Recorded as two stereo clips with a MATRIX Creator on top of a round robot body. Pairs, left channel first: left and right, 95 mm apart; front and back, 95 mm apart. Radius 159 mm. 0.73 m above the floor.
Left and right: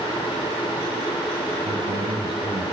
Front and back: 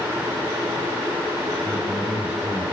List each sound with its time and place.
1.6 s a man speaking: 100° right, 4 m